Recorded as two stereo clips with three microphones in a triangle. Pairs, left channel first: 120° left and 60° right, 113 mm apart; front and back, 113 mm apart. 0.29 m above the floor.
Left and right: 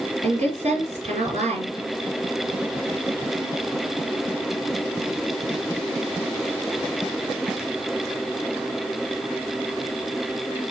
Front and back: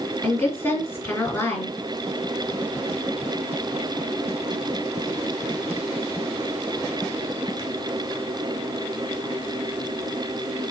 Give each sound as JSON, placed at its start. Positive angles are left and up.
{"t": 0.2, "sound": "a woman speaking", "azimuth_deg": -70, "distance_m": 4.0}